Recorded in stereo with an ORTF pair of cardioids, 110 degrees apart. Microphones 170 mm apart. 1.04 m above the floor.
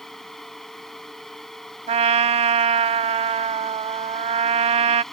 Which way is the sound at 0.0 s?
Straight ahead.